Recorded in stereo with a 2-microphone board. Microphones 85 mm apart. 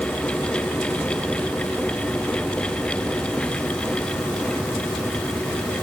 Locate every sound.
Only background noise.